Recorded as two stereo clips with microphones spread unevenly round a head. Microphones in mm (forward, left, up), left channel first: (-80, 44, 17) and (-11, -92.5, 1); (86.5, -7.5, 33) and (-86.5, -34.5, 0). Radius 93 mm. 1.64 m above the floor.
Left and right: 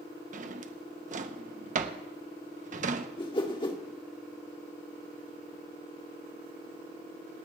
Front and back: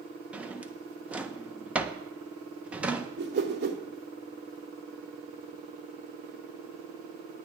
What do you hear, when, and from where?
0.3 s a drawer: 80° right, 0.9 m
3.2 s a whoosh: 160° left, 1.7 m